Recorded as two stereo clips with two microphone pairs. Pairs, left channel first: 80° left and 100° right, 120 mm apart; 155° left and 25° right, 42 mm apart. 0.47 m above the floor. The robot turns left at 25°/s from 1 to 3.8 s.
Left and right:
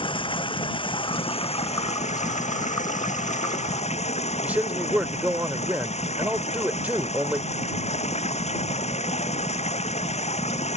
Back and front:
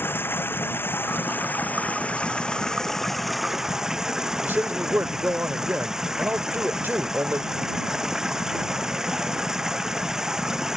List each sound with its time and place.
0.0 s running water: 125° left; by 10.8 s 55° left
4.4 s a man speaking: 30° right